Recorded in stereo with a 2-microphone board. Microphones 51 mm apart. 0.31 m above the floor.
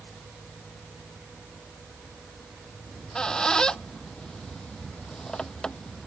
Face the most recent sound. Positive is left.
turn(degrees=15)  # may be behind; listen again after turning